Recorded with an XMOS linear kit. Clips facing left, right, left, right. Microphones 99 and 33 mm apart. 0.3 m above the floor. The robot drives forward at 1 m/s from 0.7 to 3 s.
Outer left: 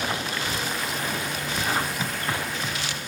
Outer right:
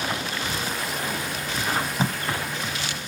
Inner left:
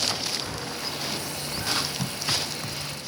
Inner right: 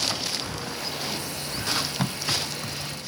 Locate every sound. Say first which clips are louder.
1.7 s tape being pulled: outer right 3 dB, inner right 2 dB; 30° right (ahead or behind), 1.0 m; by 2.2 s 40° right (ahead or behind), 0.8 m